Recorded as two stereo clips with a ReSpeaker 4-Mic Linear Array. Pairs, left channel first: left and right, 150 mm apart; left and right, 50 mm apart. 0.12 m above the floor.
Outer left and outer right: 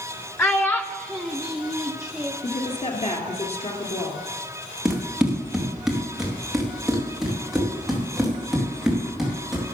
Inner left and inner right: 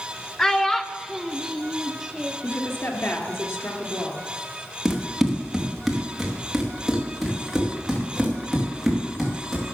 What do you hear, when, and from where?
0.4 s a child speaking: 15° left (ahead or behind), 0.7 m; by 2.3 s 5° right (ahead or behind), 1.8 m
2.4 s a woman speaking: 45° left (ahead or behind), 2 m
4.8 s running footsteps: 5° right (ahead or behind), 2.5 m